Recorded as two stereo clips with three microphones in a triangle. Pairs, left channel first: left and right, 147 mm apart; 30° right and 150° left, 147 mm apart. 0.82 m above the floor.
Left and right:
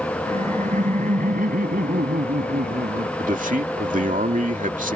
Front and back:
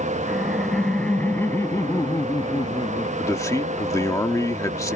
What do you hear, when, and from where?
0.3 s laughter: 120° right; by 3.1 s 85° right
3.2 s a man speaking: 95° right